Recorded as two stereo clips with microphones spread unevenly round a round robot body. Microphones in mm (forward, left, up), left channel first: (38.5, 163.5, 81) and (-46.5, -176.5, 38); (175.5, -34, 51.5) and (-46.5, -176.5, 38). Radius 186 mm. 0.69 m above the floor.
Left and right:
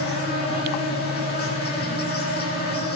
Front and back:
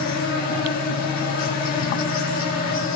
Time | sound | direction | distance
0.0 | an insect | 20° left | 4.5 m